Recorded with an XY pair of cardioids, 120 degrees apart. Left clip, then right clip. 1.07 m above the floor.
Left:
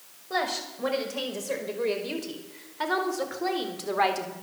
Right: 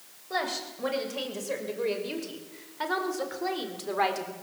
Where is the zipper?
I don't hear a zipper.